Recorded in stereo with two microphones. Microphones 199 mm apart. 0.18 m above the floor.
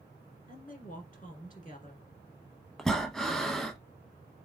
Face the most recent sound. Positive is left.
turn(degrees=0)  # may be behind; listen again after turning